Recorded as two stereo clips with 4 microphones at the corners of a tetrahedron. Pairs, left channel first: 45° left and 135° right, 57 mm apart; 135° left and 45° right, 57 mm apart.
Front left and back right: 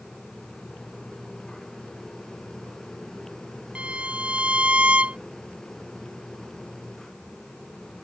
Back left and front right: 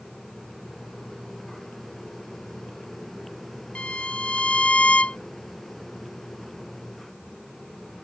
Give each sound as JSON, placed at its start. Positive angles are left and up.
{"t": 3.8, "sound": "a violin", "azimuth_deg": 180}